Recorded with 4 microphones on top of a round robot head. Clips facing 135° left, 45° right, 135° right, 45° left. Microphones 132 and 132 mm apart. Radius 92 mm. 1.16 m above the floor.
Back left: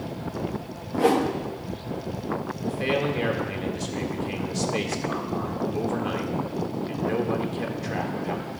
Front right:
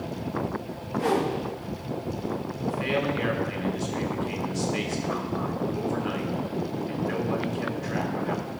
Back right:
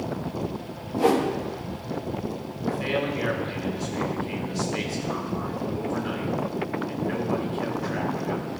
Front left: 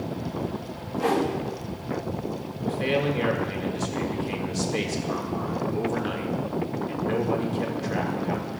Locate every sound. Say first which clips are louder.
0.9 s a whoosh: back left 4 dB, back right 3 dB; 165° left, 1.1 m
2.6 s a man speaking: back left 1 dB, front left 2 dB; 85° left, 1.8 m